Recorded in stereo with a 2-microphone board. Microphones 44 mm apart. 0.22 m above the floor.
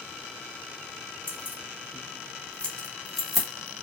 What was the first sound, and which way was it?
Keys jangling, 40° left (ahead or behind).